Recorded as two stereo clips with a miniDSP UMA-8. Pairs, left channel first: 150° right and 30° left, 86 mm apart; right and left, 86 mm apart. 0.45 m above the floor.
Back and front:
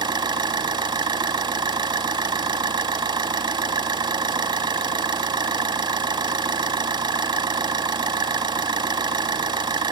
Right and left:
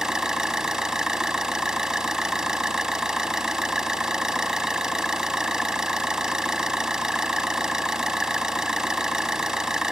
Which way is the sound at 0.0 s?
5° left.